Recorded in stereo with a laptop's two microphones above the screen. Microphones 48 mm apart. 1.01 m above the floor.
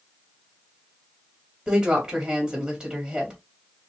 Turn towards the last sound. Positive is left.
turn(degrees=-15)  # may be behind; listen again after turning